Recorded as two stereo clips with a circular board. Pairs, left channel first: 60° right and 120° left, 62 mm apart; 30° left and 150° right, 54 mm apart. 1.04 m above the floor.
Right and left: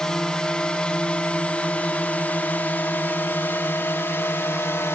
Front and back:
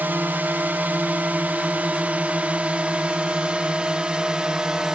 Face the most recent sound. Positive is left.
turn(degrees=-80)